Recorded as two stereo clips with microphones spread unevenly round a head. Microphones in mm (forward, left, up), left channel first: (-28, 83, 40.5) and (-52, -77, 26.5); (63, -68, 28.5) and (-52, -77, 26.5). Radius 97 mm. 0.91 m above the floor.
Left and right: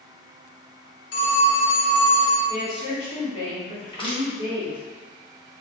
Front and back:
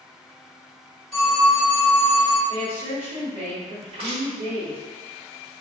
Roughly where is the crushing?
Behind left.